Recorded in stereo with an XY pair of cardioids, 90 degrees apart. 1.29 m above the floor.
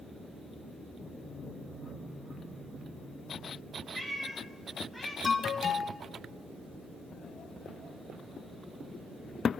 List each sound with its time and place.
3.9 s a cat meowing: 15° left, 3.5 m; by 5.1 s 5° left, 5 m
5.2 s an alarm: 45° left, 1.4 m